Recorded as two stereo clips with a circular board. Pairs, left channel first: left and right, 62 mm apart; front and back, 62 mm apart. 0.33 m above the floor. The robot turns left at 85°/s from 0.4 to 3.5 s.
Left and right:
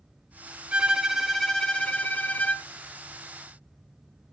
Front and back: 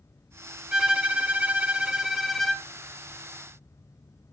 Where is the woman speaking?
I don't hear a woman speaking.